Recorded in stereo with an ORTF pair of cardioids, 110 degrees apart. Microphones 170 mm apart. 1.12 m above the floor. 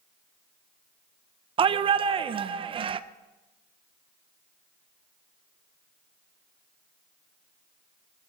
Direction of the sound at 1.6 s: 35° right.